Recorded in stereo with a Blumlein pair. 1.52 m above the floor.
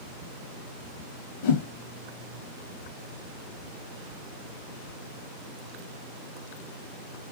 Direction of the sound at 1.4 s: 50° left.